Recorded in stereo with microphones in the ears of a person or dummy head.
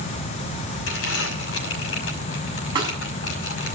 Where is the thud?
25° right (ahead or behind), 6.5 m.